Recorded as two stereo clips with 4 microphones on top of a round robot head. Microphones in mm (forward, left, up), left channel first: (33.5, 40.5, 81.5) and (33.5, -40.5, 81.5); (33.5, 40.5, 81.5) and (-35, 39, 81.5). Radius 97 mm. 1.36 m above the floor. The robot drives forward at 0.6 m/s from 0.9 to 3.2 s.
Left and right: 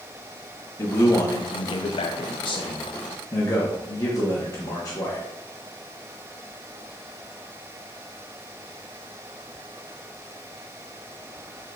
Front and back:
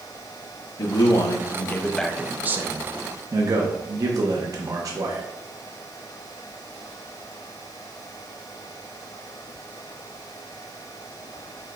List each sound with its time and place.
0.8 s a man speaking: 35° left, 0.9 m; by 5.2 s 145° left, 0.8 m